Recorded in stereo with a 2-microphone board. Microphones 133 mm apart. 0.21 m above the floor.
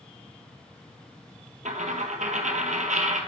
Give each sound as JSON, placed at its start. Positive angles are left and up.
{"t": 1.6, "sound": "a dropped coin", "side_deg": -85, "distance_m": 1.0}